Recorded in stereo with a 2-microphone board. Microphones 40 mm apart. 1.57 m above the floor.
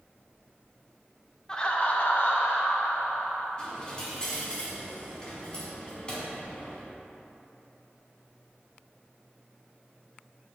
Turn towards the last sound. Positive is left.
turn(degrees=25)  # may be behind; listen again after turning